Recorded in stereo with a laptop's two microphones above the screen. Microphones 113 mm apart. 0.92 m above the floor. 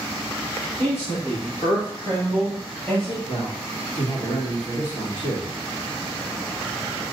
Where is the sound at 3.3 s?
60° left (ahead or behind), 1.6 m.